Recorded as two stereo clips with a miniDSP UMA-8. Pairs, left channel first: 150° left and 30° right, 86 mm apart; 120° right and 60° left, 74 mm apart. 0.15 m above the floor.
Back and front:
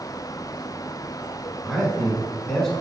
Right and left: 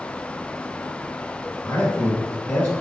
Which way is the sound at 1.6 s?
135° right.